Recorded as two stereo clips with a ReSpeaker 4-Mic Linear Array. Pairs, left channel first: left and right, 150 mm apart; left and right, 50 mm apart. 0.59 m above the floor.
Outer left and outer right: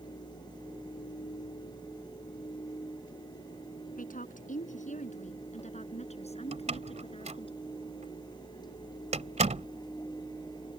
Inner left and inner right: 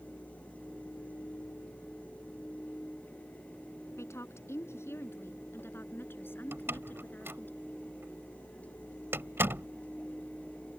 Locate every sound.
4.0 s a woman speaking: 60° left (ahead or behind); by 7.5 s 35° left (ahead or behind)
6.5 s a door slam: 50° right (ahead or behind)